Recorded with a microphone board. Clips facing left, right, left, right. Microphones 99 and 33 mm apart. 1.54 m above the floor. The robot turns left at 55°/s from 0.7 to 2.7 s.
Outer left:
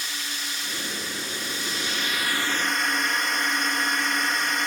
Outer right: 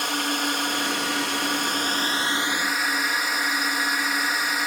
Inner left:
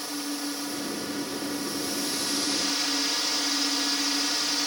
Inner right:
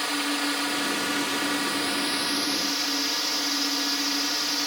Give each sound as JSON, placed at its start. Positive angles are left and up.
{"t": 0.0, "sound": "a drone", "azimuth_deg": -65}